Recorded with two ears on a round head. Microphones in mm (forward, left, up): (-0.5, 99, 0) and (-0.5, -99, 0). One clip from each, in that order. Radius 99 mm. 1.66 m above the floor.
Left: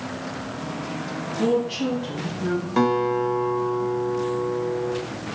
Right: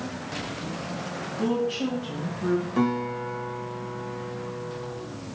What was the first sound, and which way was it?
A woman speaking, centre (ahead or behind).